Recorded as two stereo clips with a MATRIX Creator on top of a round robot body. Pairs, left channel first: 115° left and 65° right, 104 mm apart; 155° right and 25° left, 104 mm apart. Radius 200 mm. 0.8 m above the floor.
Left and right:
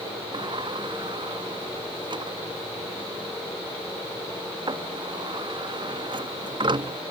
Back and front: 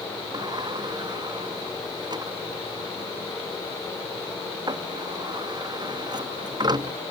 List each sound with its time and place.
0.3 s a sliding door: 25° right